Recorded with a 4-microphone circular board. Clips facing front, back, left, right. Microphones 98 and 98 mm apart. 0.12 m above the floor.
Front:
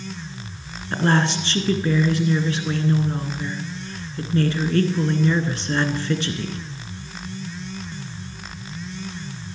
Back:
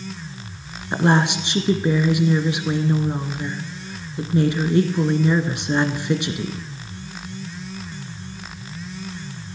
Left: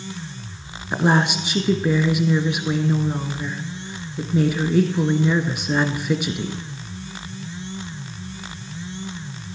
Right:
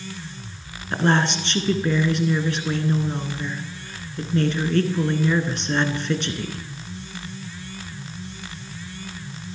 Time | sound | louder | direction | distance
0.9 | a woman speaking | back 2 dB, left 1 dB | 150° left | 1.1 m